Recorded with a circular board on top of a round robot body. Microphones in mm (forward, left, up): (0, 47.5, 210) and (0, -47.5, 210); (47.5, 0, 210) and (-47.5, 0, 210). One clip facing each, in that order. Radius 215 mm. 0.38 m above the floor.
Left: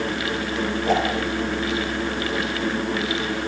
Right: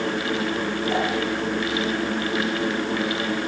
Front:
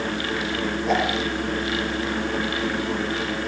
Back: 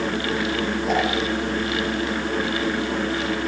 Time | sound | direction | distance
0.9 | a whoosh | 90° left | 7.5 m